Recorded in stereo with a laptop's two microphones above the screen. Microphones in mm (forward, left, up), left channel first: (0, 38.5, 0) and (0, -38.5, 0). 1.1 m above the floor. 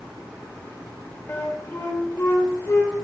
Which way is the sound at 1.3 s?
35° left (ahead or behind).